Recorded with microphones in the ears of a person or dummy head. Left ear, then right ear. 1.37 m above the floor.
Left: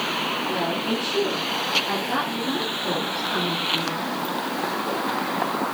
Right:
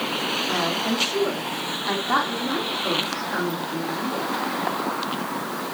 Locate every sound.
0.5 s a woman speaking: 65° right (ahead or behind), 3 m; by 4.1 s 20° right (ahead or behind), 4 m